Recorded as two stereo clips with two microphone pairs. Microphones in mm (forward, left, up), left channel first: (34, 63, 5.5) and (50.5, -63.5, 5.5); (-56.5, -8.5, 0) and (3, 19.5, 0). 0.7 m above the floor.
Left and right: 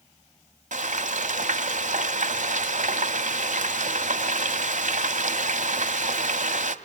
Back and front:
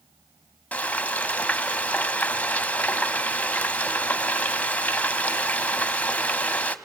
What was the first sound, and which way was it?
Frying, 90° right.